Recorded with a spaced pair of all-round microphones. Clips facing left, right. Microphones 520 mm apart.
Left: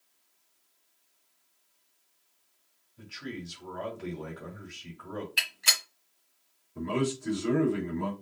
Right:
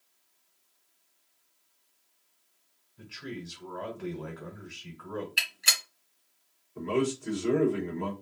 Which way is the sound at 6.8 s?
55° left (ahead or behind).